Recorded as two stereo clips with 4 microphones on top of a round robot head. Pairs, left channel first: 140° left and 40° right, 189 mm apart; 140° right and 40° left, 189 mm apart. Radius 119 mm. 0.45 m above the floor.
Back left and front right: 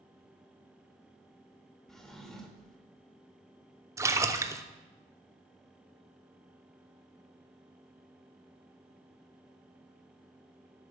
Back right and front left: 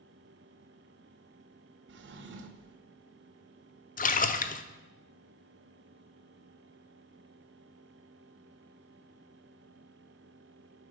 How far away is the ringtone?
I don't hear a ringtone.